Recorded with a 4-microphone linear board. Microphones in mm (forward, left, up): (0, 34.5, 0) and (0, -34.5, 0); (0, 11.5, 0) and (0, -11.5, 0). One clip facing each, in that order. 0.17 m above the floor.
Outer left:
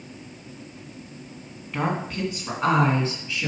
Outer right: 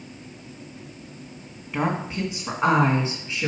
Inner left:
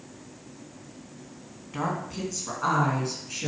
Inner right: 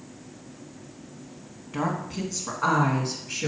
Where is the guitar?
No guitar in this recording.